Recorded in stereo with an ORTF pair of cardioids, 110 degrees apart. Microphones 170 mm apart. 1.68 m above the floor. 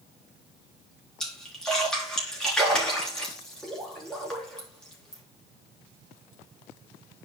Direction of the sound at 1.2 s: 5° left.